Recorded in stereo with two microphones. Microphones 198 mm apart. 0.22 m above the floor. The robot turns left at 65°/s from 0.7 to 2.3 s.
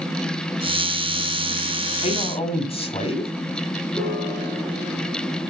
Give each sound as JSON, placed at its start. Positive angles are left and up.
{"t": 2.0, "sound": "a man speaking", "side_deg": 35, "distance_m": 1.1}
{"t": 3.9, "sound": "a piano", "side_deg": 10, "distance_m": 4.0}